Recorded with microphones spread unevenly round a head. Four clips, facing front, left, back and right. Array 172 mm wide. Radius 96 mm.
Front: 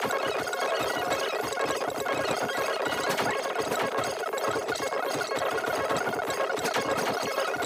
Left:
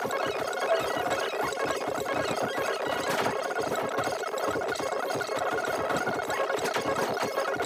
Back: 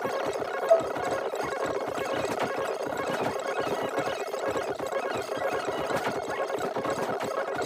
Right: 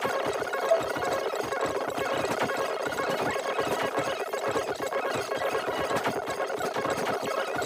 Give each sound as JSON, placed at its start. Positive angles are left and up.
{"t": 0.7, "sound": "dishes clattering", "azimuth_deg": 180}